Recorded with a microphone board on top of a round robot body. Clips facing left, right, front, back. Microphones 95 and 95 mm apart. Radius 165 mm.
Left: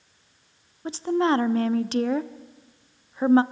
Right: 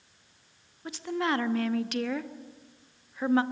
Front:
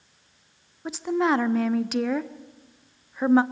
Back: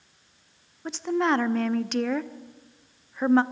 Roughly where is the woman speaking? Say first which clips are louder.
Left 7 dB, front 1 dB; left.